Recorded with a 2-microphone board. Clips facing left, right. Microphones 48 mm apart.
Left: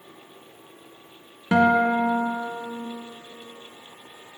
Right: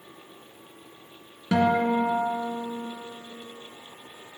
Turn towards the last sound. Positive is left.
turn(degrees=25)  # may be behind; listen again after turning